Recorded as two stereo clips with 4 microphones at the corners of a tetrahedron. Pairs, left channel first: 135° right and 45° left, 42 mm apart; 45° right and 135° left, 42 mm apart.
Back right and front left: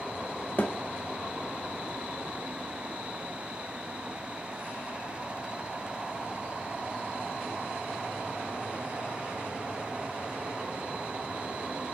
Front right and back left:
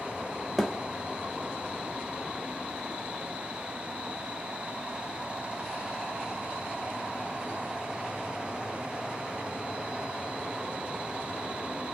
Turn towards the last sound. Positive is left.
turn(degrees=-135)